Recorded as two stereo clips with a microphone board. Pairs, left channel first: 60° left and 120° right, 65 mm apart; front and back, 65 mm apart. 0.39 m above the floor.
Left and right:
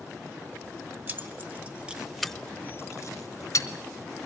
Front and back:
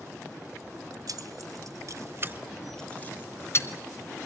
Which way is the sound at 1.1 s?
175° right.